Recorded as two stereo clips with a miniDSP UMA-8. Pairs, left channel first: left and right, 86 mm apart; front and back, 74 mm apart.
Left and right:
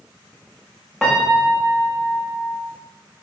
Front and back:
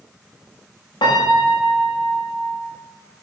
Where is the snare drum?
I don't hear a snare drum.